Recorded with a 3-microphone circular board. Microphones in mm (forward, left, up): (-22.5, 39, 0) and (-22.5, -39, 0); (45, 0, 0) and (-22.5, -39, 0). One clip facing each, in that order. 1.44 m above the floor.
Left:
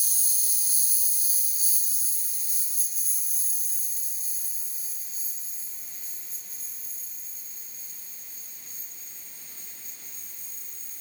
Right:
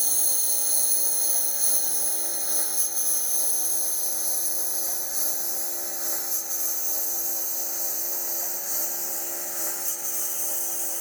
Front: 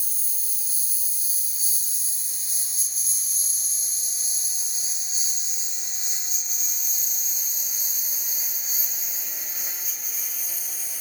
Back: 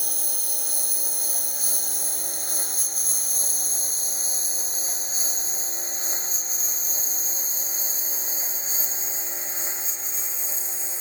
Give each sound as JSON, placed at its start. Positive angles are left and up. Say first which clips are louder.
{"t": 0.0, "sound": "a lawn mower", "louder": "right 9 dB, back 12 dB", "azimuth_deg": -125}